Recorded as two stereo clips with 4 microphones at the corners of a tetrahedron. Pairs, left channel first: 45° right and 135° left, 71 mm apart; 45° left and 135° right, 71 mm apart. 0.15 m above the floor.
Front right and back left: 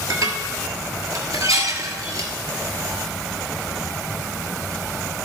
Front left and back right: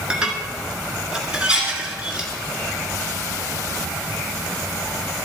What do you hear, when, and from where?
0.1 s dishes clattering: 155° left, 1.5 m